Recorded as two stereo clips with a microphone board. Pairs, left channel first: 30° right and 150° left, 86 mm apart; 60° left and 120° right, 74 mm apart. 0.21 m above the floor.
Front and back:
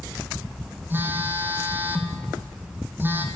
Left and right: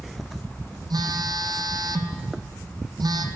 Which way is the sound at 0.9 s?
145° right.